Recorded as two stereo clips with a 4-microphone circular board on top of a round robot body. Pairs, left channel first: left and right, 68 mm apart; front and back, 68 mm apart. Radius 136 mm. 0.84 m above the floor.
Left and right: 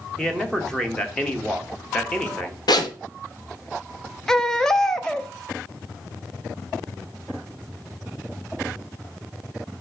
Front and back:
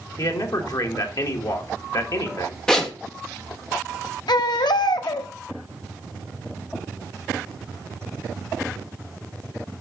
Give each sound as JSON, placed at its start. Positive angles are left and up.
{"t": 0.2, "sound": "a man speaking", "azimuth_deg": 10, "distance_m": 1.7}
{"t": 2.7, "sound": "a zipper", "azimuth_deg": 80, "distance_m": 1.3}
{"t": 4.3, "sound": "a baby crying", "azimuth_deg": 5, "distance_m": 0.8}